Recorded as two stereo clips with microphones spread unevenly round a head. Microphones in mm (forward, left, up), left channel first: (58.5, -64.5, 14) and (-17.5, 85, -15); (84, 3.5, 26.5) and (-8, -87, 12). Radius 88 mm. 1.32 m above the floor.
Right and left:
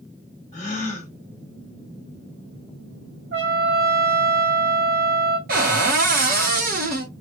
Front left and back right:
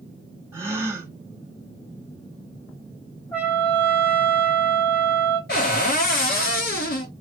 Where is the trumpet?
115° left, 1.4 m.